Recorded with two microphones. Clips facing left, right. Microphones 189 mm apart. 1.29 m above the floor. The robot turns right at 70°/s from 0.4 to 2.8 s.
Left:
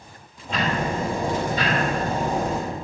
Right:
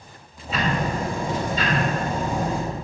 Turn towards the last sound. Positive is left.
turn(degrees=155)